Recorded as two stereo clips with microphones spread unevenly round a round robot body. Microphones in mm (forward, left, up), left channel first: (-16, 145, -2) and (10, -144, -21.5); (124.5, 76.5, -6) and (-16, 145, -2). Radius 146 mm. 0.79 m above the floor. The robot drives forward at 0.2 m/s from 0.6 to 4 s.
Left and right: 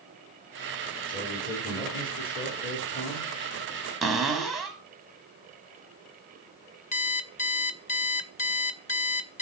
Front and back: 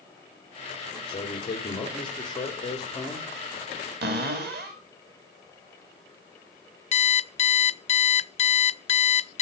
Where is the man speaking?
30° left, 2.5 m; by 3.3 s 40° left, 2 m.